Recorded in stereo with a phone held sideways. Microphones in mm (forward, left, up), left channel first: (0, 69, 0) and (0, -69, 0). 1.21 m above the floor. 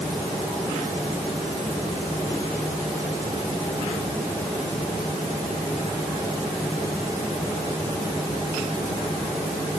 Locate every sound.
Only background noise.